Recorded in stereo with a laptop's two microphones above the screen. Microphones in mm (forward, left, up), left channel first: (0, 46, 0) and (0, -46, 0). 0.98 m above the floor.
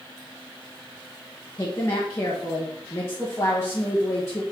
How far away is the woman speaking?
About 1.3 m.